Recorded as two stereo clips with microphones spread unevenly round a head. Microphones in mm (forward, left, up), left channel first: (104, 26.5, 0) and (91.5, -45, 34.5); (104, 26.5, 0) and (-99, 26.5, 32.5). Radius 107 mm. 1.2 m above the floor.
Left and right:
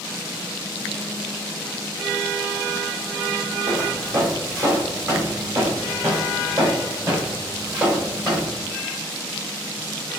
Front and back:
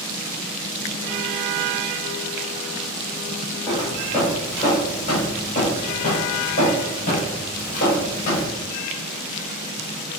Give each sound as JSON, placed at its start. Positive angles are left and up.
{"t": 3.7, "sound": "footsteps", "azimuth_deg": -75, "distance_m": 3.0}